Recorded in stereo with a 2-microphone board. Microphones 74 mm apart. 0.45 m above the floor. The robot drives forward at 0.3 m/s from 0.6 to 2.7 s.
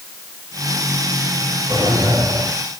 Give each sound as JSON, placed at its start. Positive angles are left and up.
{"t": 1.7, "sound": "a drawer", "side_deg": -60, "distance_m": 5.5}